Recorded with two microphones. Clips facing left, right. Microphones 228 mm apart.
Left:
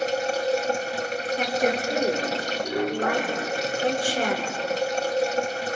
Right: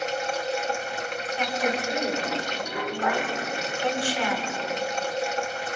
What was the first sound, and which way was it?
Running water, 35° left (ahead or behind).